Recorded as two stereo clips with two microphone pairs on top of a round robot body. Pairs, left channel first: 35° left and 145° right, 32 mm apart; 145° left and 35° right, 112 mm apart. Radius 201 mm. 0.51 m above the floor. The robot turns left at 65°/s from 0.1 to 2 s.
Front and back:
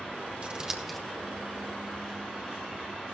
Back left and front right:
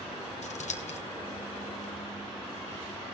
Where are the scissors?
155° left, 1.2 m; by 1.0 s 120° left, 1.2 m.